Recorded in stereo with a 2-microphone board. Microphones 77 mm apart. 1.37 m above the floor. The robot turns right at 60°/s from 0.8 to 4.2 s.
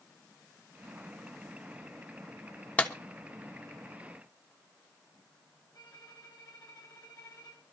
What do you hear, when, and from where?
2.8 s a clap: 20° left (ahead or behind), 1.2 m; by 2.9 s 10° left (ahead or behind), 1.2 m
5.7 s a violin: 65° left (ahead or behind), 8 m